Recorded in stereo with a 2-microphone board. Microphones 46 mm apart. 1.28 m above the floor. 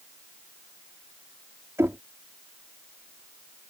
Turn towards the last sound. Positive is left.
turn(degrees=-80)